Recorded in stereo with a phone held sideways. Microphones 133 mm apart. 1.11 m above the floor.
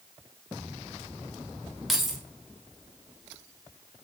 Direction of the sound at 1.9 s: Centre (ahead or behind).